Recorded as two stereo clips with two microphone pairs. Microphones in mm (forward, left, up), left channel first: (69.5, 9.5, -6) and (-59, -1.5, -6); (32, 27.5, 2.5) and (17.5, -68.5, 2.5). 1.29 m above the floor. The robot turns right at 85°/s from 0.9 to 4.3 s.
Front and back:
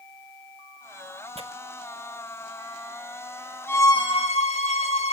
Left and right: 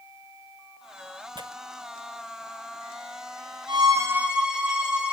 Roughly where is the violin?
Right.